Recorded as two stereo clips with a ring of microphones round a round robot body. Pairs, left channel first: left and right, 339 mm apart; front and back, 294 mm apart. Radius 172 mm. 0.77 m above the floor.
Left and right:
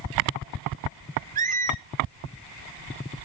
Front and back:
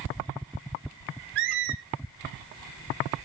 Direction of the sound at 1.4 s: 160° right.